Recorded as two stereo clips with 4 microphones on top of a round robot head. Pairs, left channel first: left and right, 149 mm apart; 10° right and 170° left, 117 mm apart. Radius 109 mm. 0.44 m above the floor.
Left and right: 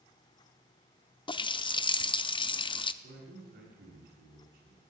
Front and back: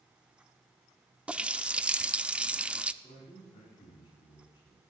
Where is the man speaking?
70° right, 5.5 m.